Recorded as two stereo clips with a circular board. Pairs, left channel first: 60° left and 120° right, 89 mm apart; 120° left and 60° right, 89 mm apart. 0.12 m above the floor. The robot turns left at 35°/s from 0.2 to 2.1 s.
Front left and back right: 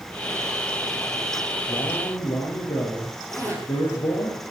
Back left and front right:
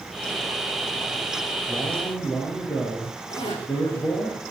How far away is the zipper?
About 8.5 m.